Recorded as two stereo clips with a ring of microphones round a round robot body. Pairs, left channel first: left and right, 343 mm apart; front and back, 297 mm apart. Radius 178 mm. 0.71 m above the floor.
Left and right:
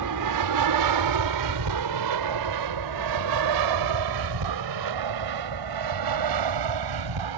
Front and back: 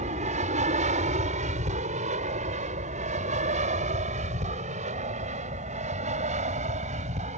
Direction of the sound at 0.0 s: 115° right.